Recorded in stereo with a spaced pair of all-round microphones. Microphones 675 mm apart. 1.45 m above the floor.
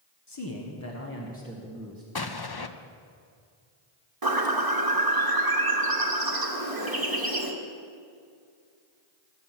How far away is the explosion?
About 0.7 m.